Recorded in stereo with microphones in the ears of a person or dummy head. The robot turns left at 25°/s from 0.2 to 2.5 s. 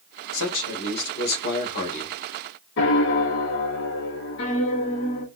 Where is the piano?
65° left (ahead or behind), 1.0 m.